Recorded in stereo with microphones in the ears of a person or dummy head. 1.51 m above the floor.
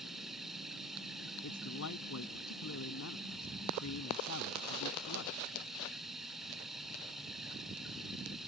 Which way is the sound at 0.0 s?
5° right (ahead or behind).